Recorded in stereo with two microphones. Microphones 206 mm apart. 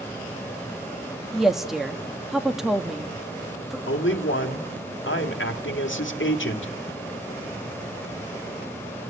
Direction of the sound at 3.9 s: 65° left (ahead or behind).